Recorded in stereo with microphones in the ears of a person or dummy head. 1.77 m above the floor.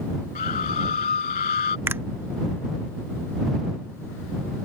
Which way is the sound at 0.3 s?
40° left (ahead or behind).